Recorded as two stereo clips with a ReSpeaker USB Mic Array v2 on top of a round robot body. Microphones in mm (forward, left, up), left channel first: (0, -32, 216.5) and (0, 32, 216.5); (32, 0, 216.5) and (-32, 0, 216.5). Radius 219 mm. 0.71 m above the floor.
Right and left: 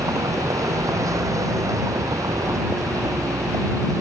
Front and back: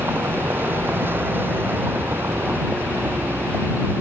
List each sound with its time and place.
0.0 s a vehicle: 125° left